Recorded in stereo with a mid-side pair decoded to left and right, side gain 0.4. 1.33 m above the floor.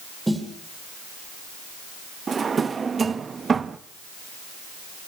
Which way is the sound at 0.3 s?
10° right.